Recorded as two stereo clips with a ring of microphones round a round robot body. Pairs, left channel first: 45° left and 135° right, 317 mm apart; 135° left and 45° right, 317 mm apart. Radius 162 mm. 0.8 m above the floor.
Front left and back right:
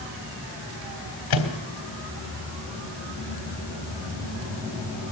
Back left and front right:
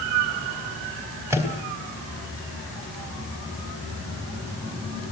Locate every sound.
1.3 s a microwave: 35° left, 3 m